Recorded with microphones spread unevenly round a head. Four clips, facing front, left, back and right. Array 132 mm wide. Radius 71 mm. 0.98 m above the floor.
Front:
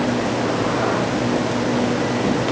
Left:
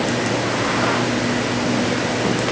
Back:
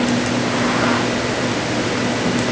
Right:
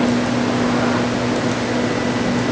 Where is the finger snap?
I don't hear a finger snap.